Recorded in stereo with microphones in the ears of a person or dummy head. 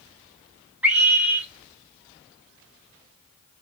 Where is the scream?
10° right (ahead or behind), 0.9 m.